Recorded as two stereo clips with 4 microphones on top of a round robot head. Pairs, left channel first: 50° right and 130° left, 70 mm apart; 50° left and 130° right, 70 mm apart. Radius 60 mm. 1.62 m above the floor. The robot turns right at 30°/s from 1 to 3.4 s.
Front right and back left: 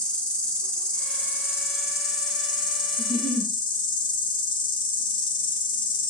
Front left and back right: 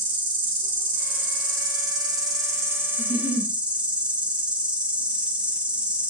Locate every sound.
0.0 s an insect: 125° right, 1.2 m; by 6.1 s 55° right, 1.2 m
3.0 s a giggle: straight ahead, 2 m; by 3.5 s 15° left, 2 m